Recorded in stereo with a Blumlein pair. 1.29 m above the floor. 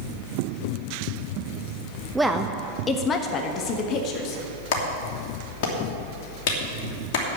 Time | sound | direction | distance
2.1 | a woman speaking | 10° right | 0.7 m
4.7 | a clap | 50° left | 2.5 m